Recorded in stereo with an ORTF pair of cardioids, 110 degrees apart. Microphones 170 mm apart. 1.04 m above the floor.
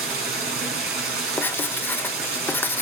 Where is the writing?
10° left, 0.5 m.